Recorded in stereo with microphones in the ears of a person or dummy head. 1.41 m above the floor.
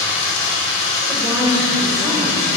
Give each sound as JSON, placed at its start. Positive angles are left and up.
{"t": 0.0, "sound": "running water", "side_deg": 65, "distance_m": 3.0}
{"t": 1.1, "sound": "a woman speaking", "side_deg": 0, "distance_m": 1.3}